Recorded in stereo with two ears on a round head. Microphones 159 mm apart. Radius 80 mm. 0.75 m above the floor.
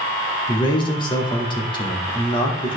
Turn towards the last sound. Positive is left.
turn(degrees=25)  # may be behind; listen again after turning